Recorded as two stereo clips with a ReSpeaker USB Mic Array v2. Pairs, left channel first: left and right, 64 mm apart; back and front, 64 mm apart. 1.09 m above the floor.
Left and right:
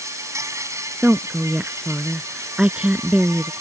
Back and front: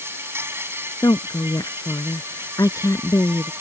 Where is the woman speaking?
165° right.